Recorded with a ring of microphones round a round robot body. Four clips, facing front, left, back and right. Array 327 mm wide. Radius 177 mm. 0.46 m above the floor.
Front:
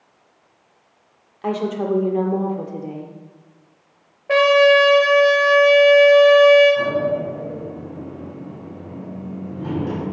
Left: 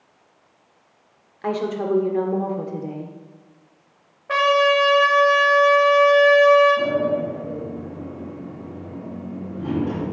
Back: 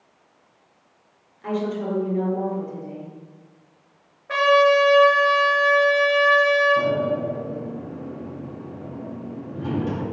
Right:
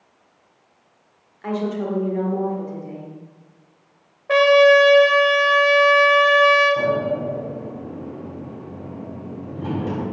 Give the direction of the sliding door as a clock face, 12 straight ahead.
4 o'clock.